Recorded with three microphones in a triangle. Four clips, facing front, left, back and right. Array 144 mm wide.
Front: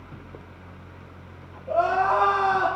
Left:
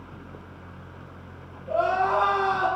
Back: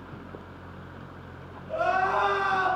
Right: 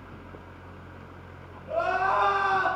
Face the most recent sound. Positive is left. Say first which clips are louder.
# left 3 dB, front 4 dB
turn(degrees=20)